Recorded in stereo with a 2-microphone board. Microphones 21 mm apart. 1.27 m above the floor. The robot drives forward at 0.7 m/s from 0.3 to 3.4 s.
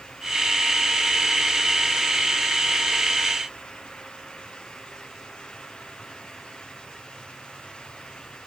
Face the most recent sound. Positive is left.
No sound to turn to.